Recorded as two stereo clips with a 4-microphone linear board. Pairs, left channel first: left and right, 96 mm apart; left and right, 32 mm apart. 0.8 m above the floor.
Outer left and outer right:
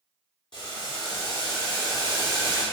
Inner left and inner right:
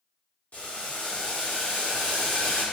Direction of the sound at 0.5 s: 55° left (ahead or behind).